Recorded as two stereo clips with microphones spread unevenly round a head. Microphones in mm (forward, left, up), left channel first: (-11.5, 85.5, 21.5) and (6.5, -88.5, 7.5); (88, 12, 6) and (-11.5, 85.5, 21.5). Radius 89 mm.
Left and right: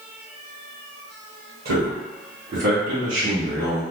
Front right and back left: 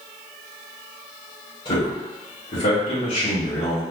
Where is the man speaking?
80° right, 1.5 m; by 3.8 s 25° right, 2 m.